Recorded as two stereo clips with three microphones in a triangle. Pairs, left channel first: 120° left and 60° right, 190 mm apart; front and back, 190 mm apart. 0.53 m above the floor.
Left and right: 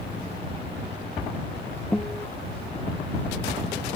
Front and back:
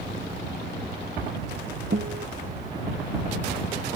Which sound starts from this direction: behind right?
A guitar, at 1.9 s.